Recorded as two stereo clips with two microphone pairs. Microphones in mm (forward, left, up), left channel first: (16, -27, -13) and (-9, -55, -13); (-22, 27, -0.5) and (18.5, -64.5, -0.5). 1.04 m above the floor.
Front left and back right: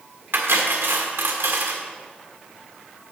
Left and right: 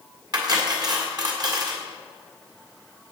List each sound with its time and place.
0.3 s cutlery clinking: 110° right, 1.9 m